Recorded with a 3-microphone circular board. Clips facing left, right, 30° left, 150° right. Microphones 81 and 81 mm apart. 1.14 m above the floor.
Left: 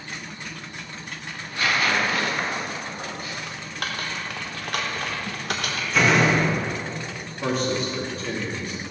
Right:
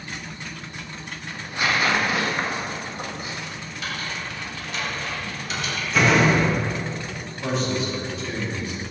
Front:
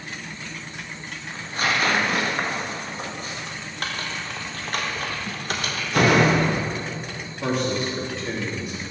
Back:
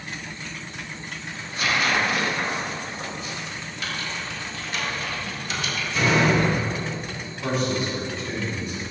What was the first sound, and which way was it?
Tearing paper, 20° right.